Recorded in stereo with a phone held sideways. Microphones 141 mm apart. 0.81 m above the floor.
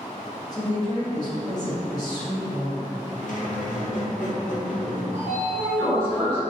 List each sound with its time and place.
0.5 s a woman speaking: 25° left (ahead or behind), 0.8 m
3.2 s a squeak: 65° left (ahead or behind), 0.6 m
5.1 s a sliding door: 40° left (ahead or behind), 0.9 m